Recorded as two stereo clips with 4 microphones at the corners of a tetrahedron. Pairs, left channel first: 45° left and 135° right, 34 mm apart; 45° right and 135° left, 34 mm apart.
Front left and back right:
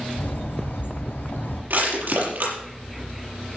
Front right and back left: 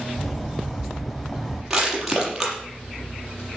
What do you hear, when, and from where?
0.2 s a bird: 45° left, 4 m
1.7 s crushing: 145° right, 6.5 m